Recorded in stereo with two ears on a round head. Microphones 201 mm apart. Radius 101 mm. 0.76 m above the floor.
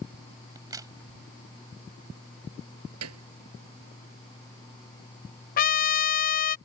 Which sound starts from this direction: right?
A piano, at 3.0 s.